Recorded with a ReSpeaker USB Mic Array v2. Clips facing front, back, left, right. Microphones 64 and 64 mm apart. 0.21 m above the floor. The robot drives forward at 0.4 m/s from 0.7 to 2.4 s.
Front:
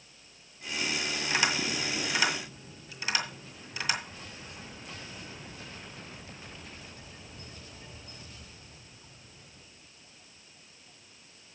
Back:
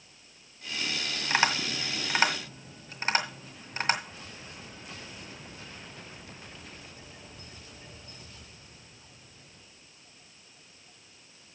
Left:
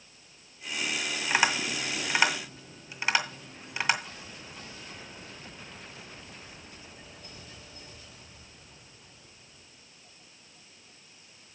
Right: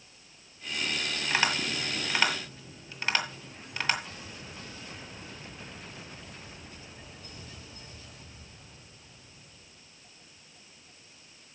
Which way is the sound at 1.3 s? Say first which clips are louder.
Back 3 dB, left 2 dB; 155° left.